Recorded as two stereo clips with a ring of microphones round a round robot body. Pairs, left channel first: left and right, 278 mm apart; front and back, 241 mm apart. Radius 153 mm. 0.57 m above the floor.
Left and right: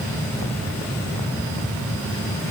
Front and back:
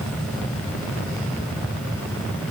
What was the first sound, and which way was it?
Only background noise.